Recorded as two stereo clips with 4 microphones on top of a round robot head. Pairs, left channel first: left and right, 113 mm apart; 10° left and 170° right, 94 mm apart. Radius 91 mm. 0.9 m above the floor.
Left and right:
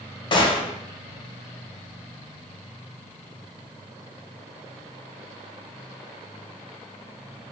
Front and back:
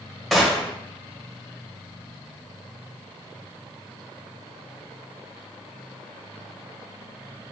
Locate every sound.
0.3 s a gunshot: 95° left, 0.8 m